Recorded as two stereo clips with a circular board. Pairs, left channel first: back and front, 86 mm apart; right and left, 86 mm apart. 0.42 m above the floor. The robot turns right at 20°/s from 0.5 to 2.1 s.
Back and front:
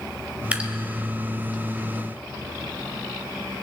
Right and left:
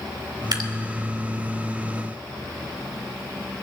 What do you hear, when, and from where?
0.5 s dripping: 70° left, 1.2 m; by 0.7 s 75° left, 1.2 m